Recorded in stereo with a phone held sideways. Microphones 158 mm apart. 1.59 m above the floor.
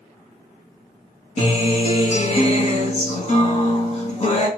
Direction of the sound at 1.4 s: 40° left (ahead or behind).